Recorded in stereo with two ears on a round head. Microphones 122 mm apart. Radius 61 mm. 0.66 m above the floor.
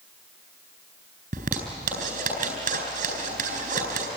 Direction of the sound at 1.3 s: 70° right (ahead or behind).